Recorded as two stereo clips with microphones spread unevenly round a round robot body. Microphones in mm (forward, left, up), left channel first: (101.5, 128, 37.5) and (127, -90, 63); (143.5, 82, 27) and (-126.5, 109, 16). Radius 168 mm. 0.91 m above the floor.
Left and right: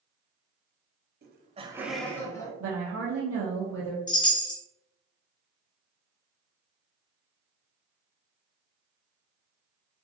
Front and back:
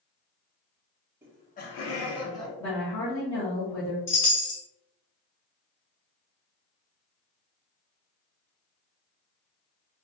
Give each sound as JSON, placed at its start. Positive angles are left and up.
{"t": 1.2, "sound": "laughter", "azimuth_deg": -110, "distance_m": 0.5}
{"t": 2.6, "sound": "a woman speaking", "azimuth_deg": -90, "distance_m": 0.6}
{"t": 4.1, "sound": "a chime", "azimuth_deg": 25, "distance_m": 1.0}